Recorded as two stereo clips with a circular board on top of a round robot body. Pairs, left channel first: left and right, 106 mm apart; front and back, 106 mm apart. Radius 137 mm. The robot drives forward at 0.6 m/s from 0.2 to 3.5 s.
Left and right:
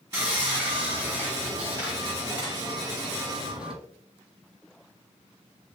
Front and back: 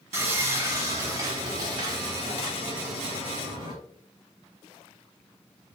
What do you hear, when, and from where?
0.1 s sawing: 155° right, 2.0 m; by 3.7 s 170° right, 4 m